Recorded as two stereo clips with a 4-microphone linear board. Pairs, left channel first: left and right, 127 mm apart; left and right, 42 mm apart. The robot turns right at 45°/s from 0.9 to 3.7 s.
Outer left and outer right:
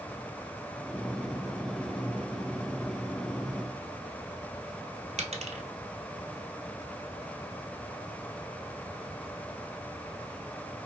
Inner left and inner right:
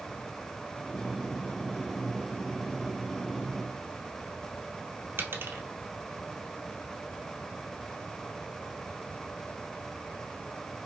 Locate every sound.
5.2 s a dropped coin: 60° right (ahead or behind), 0.7 m